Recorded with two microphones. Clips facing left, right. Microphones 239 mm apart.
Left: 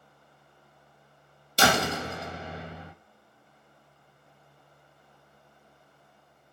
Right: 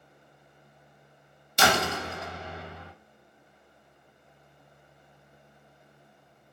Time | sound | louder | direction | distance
1.6 | a door slam | left 1 dB | 35° left (ahead or behind) | 1.7 m